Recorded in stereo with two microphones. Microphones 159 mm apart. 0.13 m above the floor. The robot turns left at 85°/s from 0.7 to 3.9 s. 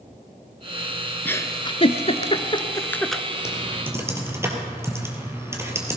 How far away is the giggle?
About 0.7 m.